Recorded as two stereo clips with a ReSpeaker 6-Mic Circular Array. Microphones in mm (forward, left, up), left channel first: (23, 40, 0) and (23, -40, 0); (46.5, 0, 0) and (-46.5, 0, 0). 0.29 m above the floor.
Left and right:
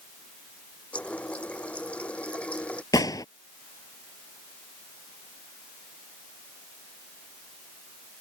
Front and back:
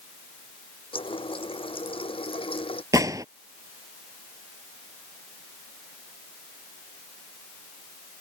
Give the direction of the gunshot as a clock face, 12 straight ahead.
8 o'clock.